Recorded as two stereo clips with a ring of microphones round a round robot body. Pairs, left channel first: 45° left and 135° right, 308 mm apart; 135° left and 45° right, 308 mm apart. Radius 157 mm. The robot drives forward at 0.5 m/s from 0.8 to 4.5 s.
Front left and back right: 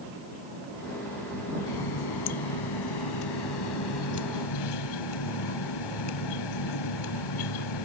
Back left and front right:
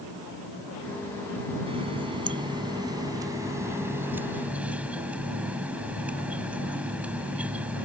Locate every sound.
1.7 s a running tap: 30° left; by 7.8 s 40° left